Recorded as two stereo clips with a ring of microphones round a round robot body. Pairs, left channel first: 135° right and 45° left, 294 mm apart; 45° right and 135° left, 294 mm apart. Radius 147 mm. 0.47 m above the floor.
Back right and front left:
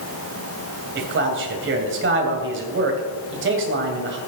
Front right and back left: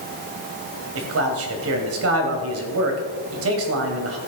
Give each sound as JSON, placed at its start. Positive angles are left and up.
{"t": 0.9, "sound": "a man speaking", "azimuth_deg": 95, "distance_m": 2.5}